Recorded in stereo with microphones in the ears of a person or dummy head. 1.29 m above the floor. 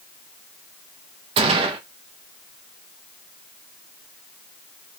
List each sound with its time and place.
1.4 s a gunshot: 30° right (ahead or behind), 0.8 m